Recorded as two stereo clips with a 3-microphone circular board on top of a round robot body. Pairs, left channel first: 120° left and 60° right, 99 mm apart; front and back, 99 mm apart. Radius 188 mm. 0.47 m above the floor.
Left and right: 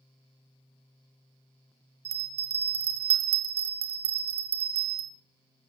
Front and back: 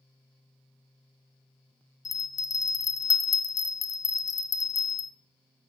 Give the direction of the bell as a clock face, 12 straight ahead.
2 o'clock.